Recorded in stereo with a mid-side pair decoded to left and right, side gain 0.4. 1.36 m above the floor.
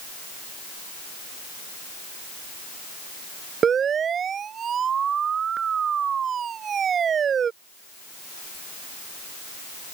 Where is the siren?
55° right.